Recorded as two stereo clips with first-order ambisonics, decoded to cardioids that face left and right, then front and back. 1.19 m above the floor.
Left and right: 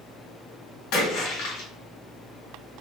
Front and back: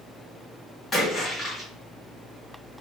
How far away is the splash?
About 1.8 m.